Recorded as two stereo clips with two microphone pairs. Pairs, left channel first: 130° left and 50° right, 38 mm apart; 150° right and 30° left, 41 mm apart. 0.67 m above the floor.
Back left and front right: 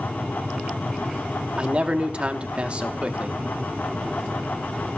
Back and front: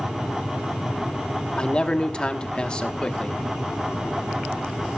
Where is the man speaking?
95° right, 1.2 m.